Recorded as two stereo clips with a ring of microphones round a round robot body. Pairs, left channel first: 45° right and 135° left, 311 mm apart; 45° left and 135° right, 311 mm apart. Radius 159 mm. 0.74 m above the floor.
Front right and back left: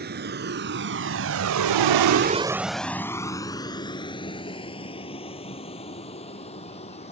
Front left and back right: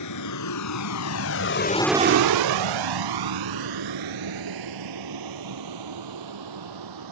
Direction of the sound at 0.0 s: 75° left.